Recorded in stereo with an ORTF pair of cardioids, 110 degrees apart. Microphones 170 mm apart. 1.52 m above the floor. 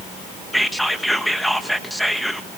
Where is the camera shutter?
No camera shutter in this recording.